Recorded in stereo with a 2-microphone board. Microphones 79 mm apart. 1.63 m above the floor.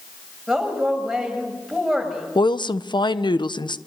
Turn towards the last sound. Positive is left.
turn(degrees=75)  # may be behind; listen again after turning